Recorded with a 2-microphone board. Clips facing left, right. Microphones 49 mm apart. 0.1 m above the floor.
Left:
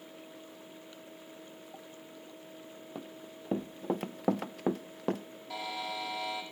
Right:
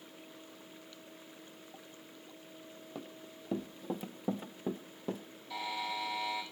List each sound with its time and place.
3.0 s running footsteps: 10° left (ahead or behind), 0.8 m; by 5.2 s 65° left (ahead or behind), 0.8 m
5.5 s a buzzer: 75° left (ahead or behind), 6 m